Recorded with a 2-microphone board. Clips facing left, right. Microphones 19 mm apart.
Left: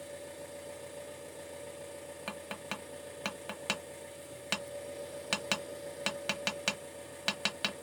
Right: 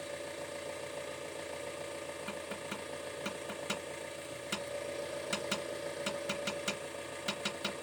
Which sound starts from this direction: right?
An engine running, at 0.0 s.